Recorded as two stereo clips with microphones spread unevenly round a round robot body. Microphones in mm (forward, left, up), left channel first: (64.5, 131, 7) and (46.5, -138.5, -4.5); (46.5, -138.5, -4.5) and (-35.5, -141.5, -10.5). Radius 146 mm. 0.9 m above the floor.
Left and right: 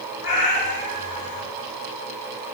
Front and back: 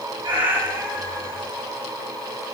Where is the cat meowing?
135° left, 2.5 m.